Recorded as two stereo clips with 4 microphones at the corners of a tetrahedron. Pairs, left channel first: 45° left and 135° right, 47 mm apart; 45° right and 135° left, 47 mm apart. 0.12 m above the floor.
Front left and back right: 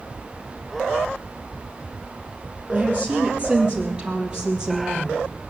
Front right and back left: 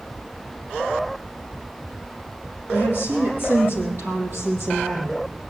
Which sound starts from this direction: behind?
A woman speaking, at 2.7 s.